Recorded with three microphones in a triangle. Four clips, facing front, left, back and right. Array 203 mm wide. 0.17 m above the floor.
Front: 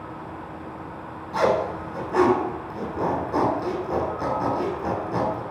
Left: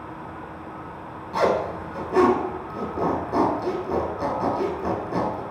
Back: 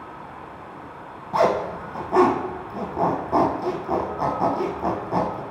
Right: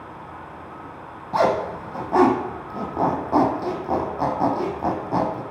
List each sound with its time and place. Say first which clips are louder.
1.3 s a zipper: right 2 dB, back 1 dB; 110° right, 1.5 m